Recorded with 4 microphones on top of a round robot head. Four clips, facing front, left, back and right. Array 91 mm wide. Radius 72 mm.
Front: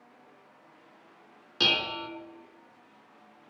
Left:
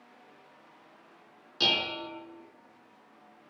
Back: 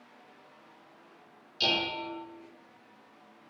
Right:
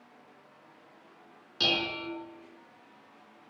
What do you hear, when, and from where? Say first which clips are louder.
1.6 s dishes clattering: even, front 1 dB; 5° left, 4.5 m